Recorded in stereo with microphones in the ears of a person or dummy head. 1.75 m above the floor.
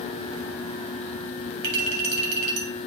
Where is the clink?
60° right (ahead or behind), 2.5 m.